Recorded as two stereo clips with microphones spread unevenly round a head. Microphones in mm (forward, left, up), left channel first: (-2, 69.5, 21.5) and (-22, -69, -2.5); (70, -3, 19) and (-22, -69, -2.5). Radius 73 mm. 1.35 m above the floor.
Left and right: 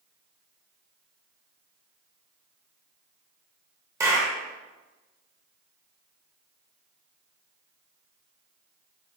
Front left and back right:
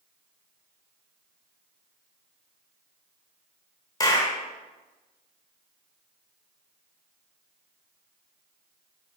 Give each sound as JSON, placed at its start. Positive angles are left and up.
{"t": 4.0, "sound": "a clap", "azimuth_deg": -25, "distance_m": 0.8}